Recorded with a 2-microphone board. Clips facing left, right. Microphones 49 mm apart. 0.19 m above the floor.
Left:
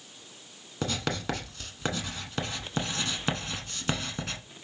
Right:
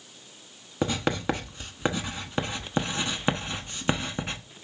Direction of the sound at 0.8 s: 20° right (ahead or behind).